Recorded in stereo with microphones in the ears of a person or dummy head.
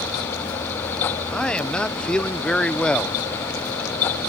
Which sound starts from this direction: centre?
A man speaking, at 1.3 s.